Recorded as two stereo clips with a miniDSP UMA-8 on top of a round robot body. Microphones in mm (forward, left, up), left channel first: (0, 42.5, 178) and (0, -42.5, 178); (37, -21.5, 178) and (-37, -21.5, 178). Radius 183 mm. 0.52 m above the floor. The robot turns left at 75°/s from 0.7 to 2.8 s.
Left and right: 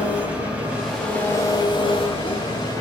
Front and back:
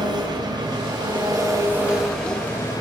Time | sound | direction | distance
0.0 | an engine running | 165° right | 5 m